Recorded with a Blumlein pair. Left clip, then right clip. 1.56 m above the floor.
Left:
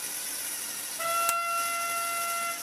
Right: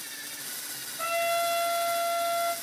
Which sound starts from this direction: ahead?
A trumpet, at 1.0 s.